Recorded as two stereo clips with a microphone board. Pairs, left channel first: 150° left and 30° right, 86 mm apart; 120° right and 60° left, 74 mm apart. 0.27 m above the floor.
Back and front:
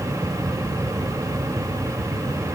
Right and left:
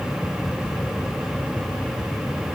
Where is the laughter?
I don't hear laughter.